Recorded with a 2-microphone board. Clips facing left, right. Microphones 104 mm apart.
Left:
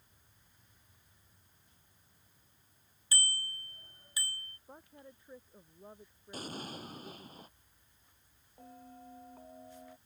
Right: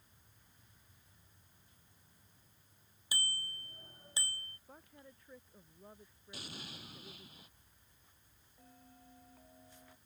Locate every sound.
3.1 s a bicycle bell: 15° right (ahead or behind); by 4.6 s 30° right (ahead or behind)
4.7 s a woman speaking: 20° left (ahead or behind)
6.3 s an explosion: 45° left (ahead or behind)
8.6 s a bell: 40° left (ahead or behind)